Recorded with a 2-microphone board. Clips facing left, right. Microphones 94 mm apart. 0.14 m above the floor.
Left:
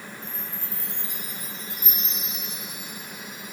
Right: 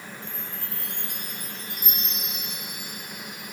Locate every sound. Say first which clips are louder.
0.2 s a chime: even; 65° right (ahead or behind)